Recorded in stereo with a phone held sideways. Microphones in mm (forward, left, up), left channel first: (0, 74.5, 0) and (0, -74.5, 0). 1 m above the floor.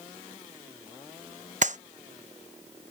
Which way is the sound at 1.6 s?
55° right (ahead or behind).